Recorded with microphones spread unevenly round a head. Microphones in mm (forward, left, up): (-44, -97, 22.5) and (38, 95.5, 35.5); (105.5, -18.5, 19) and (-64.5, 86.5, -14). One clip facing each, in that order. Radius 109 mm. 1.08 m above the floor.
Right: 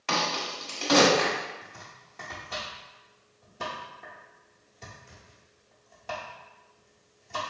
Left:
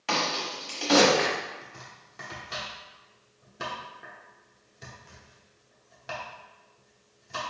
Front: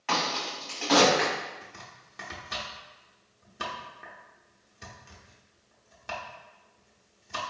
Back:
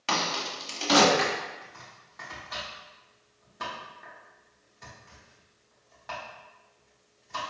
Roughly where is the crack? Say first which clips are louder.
Left 1 dB, even; behind left.